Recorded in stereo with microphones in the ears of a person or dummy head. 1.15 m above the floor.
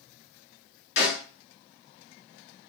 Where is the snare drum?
70° left (ahead or behind), 1.4 m.